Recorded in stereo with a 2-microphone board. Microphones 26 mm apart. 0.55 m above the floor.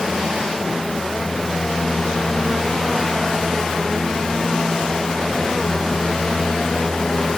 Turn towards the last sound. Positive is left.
No sound to turn to.